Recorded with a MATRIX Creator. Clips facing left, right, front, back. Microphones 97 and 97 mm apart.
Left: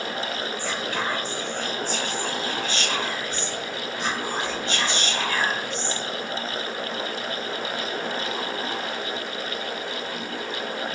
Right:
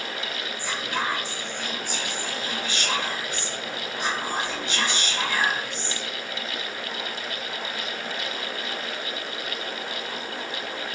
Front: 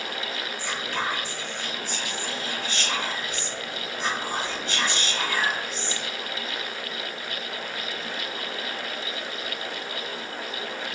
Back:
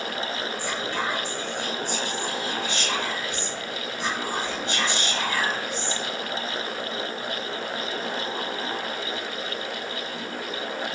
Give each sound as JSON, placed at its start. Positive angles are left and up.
{"t": 0.6, "sound": "whispering", "azimuth_deg": -140, "distance_m": 1.2}